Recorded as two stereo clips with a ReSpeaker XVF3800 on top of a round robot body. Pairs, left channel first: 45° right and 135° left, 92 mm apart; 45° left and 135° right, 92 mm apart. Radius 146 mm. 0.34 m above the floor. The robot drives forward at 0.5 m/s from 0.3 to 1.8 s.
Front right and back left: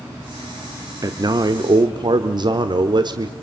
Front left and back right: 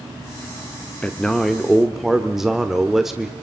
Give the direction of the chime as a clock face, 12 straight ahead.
I don't hear a chime.